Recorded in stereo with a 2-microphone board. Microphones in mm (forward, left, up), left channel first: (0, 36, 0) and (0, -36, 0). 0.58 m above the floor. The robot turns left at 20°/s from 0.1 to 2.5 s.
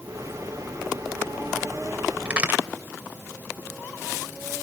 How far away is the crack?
About 2.0 m.